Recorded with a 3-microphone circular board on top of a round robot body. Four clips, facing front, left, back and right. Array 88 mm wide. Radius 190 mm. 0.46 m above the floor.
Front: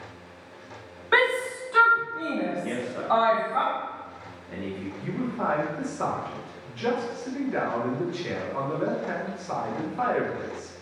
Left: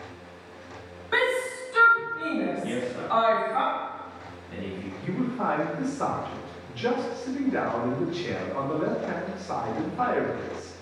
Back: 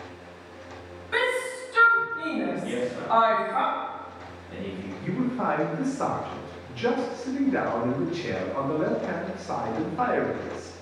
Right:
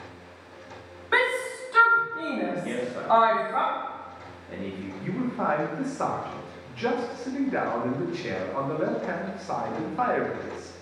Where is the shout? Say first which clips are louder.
Even, front 3 dB; 25° right, 1.3 m; by 3.6 s 90° right, 1.6 m.